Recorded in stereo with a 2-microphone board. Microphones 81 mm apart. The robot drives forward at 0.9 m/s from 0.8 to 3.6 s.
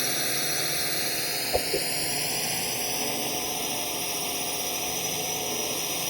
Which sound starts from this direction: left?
A whoosh, at 1.5 s.